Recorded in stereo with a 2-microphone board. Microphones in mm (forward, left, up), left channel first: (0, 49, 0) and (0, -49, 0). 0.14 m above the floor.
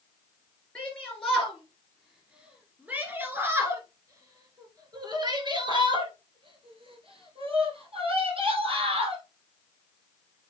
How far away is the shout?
About 2.5 m.